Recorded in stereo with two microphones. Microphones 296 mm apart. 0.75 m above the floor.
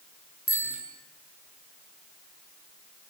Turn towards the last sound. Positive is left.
turn(degrees=45)  # may be behind; listen again after turning